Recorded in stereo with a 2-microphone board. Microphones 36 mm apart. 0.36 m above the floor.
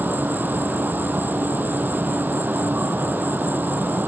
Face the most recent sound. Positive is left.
turn(degrees=-70)  # may be behind; listen again after turning